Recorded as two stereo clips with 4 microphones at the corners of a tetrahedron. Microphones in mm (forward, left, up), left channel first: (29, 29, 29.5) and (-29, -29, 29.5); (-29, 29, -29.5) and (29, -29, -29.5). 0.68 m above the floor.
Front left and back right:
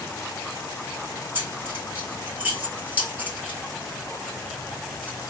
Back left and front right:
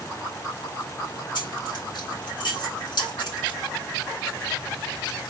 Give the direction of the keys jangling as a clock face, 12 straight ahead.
7 o'clock.